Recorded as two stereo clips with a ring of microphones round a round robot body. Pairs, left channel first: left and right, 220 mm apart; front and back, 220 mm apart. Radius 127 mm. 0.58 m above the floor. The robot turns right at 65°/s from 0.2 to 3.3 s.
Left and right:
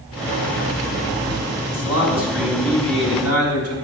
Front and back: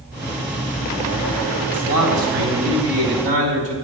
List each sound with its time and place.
1.7 s a man speaking: 135° left, 4 m; by 3.8 s 120° right, 4 m